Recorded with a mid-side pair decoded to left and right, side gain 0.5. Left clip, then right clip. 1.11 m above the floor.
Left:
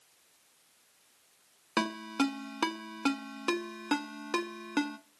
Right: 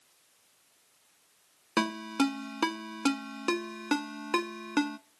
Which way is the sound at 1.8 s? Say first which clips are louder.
Right 2 dB; 15° right.